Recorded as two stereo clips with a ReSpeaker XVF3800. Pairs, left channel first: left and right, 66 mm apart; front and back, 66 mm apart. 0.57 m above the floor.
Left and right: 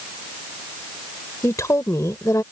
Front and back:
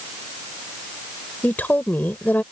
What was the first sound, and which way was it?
A woman speaking, 60° left.